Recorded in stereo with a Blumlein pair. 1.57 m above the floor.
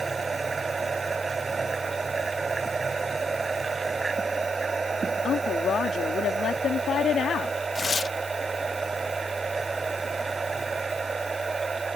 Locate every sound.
0.0 s a machine running: 15° right
5.2 s a woman speaking: 25° left
7.8 s tearing paper: 15° left